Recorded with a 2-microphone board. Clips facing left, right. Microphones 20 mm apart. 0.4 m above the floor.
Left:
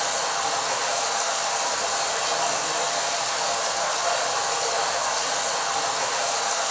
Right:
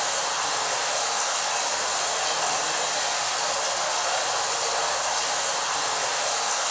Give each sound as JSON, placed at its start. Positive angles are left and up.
{"t": 0.0, "sound": "running water", "side_deg": 5, "distance_m": 0.8}